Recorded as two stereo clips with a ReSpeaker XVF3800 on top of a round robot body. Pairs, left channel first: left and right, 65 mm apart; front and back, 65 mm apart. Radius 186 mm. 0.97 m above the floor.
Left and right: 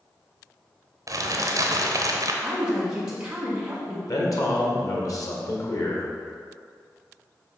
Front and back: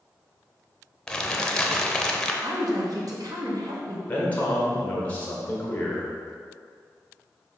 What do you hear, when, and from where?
1.1 s crumpling: 80° right, 0.9 m
2.4 s a woman speaking: 165° right, 1.6 m
4.1 s a man speaking: 65° left, 1.7 m